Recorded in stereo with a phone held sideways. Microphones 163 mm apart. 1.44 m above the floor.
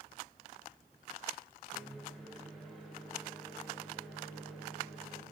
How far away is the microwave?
About 1.2 m.